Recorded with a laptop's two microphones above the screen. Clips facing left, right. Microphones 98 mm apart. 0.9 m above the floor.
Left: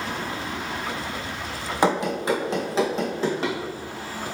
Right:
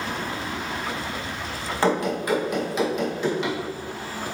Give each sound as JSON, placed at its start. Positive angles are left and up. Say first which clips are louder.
{"t": 1.8, "sound": "running footsteps", "louder": "left 1 dB", "side_deg": 15, "distance_m": 1.9}